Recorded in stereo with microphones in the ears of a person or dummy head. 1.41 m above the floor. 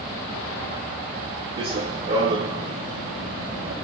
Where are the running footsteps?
35° right (ahead or behind), 4.5 m; by 3.7 s 50° right (ahead or behind), 3 m.